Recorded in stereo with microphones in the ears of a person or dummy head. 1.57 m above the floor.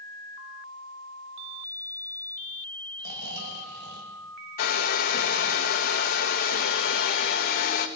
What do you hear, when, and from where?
3.0 s snoring: 65° right (ahead or behind), 2.5 m
4.6 s a hair dryer: 50° left (ahead or behind), 1.2 m